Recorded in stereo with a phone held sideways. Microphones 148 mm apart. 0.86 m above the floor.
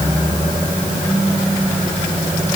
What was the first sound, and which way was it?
Only background noise.